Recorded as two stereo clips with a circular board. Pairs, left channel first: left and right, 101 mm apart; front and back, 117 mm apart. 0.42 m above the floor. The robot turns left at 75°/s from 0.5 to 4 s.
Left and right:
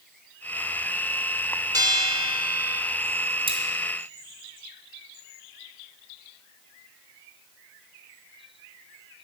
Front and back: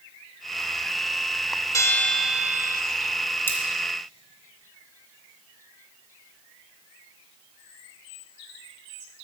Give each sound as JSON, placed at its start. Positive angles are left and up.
{"t": 1.7, "sound": "a bell", "azimuth_deg": -50, "distance_m": 0.8}
{"t": 3.5, "sound": "cutlery clinking", "azimuth_deg": -70, "distance_m": 1.9}